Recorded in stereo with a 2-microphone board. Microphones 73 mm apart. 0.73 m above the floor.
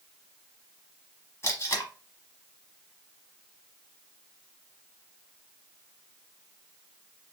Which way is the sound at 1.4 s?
35° left (ahead or behind).